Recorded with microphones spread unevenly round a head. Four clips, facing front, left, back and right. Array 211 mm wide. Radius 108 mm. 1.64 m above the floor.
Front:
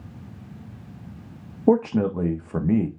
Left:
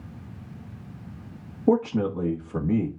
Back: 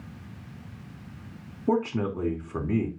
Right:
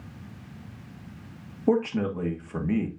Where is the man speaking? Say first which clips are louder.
Left 2 dB, front 6 dB; 5° left, 1.6 m.